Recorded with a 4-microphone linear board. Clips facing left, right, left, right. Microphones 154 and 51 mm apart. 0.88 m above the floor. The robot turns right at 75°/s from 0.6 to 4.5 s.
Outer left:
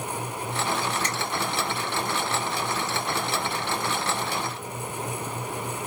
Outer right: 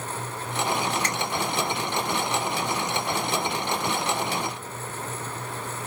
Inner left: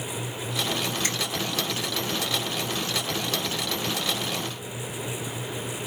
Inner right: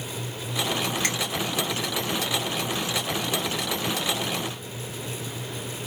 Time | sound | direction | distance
1.0 | a finger snap | 65° right (ahead or behind) | 2 m